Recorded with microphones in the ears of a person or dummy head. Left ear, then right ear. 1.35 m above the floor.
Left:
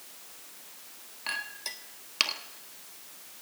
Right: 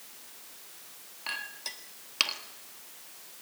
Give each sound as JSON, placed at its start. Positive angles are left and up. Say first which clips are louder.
{"t": 1.3, "sound": "a clink", "louder": "left 2 dB", "side_deg": 0, "distance_m": 1.3}